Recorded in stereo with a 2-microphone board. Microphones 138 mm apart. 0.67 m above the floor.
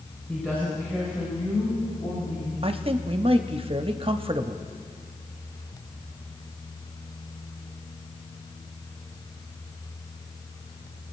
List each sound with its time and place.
0.3 s a woman speaking: 5° left (ahead or behind), 3.5 m; by 2.5 s 50° left (ahead or behind), 5 m
2.6 s a man speaking: 40° right (ahead or behind), 0.6 m